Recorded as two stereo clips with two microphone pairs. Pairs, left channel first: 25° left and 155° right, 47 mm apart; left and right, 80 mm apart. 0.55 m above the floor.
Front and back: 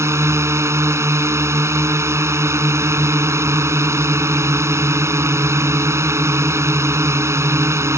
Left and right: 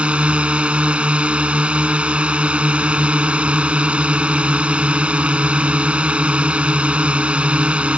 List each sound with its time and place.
0.0 s a drone: 165° right